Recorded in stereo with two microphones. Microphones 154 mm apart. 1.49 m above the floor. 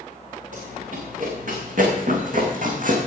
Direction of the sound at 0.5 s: 55° right (ahead or behind).